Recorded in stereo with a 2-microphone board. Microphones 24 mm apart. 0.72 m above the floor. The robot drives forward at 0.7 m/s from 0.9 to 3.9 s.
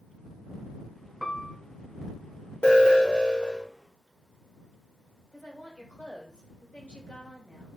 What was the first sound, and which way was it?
A piano, 25° left (ahead or behind).